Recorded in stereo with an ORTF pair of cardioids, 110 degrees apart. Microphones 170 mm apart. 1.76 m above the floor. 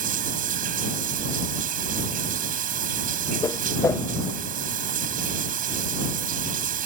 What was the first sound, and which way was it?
Running water, 55° right.